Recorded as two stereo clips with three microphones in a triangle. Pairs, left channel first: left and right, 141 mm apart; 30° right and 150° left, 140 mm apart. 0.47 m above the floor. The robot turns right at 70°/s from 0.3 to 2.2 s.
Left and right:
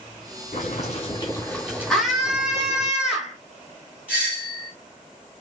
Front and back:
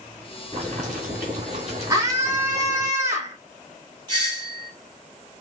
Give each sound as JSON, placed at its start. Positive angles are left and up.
{"t": 0.5, "sound": "boiling", "azimuth_deg": 100, "distance_m": 2.0}
{"t": 1.9, "sound": "a scream", "azimuth_deg": 170, "distance_m": 0.8}
{"t": 4.1, "sound": "a doorbell", "azimuth_deg": -165, "distance_m": 2.5}